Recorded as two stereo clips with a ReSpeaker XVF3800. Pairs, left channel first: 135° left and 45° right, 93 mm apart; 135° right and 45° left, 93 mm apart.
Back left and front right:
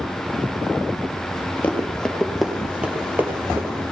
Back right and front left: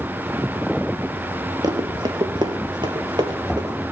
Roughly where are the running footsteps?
Ahead left.